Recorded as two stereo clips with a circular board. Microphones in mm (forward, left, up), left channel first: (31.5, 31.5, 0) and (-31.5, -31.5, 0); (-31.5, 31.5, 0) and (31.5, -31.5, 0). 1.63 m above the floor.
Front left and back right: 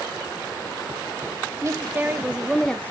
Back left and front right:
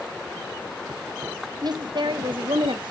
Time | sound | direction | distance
1.6 | a woman speaking | 80° right | 0.9 m